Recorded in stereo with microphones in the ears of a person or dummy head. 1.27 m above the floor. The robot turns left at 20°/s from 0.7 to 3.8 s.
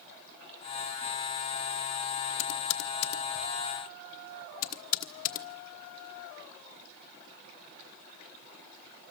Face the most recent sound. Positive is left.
turn(degrees=45)  # may be behind; listen again after turning